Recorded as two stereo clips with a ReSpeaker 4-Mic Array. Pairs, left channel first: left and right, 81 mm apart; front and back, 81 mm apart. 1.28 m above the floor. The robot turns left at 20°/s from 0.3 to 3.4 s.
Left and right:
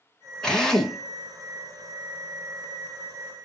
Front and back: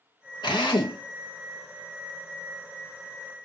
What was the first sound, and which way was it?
A drill, 10° left.